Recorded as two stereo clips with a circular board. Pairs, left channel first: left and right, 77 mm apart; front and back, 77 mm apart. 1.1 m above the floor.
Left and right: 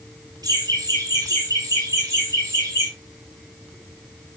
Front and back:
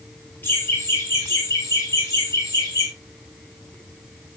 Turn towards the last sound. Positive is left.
turn(degrees=-40)